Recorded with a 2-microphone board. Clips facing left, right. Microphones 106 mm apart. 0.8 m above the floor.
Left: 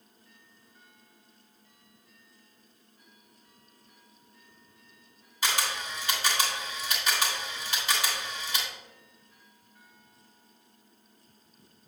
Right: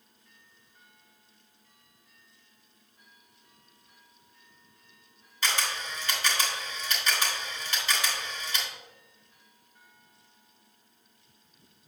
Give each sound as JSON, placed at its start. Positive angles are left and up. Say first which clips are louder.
{"t": 5.4, "sound": "a camera shutter", "louder": "left 1 dB", "side_deg": 10, "distance_m": 2.5}